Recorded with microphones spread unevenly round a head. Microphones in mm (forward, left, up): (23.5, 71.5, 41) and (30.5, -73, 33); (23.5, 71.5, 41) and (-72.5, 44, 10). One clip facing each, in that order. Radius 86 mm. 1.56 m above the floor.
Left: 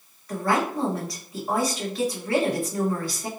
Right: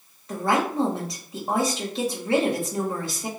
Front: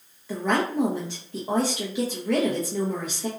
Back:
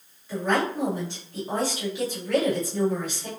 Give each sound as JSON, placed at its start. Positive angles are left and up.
{"t": 0.3, "sound": "a woman speaking", "azimuth_deg": -20, "distance_m": 1.7}